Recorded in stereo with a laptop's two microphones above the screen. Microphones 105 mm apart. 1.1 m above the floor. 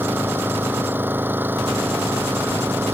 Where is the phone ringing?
No phone ringing in this recording.